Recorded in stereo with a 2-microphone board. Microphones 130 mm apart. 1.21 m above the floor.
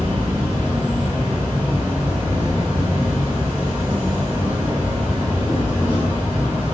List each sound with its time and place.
0.0 s an insect: 10° right (ahead or behind), 2.5 m